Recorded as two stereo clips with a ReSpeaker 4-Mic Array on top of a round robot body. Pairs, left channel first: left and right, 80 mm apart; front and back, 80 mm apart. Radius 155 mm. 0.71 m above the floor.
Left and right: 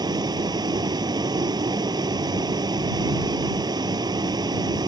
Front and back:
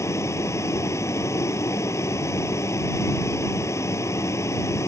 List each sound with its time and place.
0.0 s a vehicle: 55° right